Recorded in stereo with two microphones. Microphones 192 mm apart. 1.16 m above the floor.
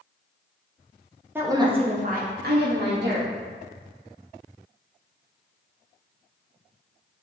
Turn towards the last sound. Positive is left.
turn(degrees=-65)  # may be behind; listen again after turning